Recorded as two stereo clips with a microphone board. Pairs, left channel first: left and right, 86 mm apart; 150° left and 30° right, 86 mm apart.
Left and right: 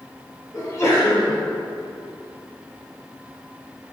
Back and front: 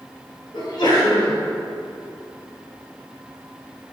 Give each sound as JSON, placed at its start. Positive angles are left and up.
{"t": 0.5, "sound": "a sneeze", "azimuth_deg": 135, "distance_m": 2.5}